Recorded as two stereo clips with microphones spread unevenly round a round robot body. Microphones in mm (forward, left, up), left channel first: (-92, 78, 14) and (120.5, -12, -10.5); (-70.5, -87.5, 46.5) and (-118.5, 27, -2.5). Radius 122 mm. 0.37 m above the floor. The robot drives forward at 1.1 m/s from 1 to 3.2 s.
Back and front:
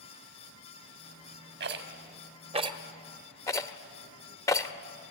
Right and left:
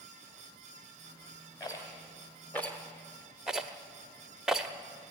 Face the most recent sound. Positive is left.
turn(degrees=80)